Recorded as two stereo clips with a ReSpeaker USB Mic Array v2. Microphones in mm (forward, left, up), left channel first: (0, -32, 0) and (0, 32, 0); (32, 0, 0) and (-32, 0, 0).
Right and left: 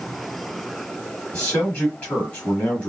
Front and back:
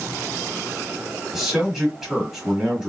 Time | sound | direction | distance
1.3 | a man speaking | 105° right | 1.4 m